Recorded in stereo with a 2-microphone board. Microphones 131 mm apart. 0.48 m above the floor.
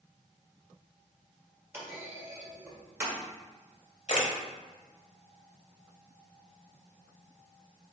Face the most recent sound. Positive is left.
turn(degrees=60)  # may be behind; listen again after turning